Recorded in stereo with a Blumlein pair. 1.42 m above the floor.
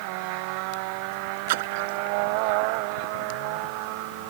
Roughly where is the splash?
Ahead right.